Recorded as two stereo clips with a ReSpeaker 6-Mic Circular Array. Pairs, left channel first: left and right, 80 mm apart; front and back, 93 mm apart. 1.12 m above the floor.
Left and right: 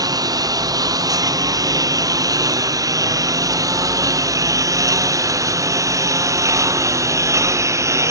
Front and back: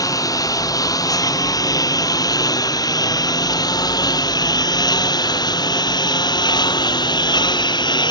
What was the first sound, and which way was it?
A lawn mower, 50° right.